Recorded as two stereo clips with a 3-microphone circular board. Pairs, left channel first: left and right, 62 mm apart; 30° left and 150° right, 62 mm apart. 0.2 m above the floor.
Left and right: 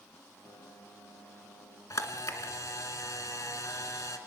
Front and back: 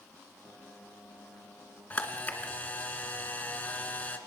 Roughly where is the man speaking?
I don't hear a man speaking.